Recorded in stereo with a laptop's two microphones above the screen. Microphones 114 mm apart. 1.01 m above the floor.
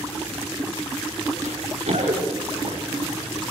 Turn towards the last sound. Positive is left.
turn(degrees=-70)  # may be behind; listen again after turning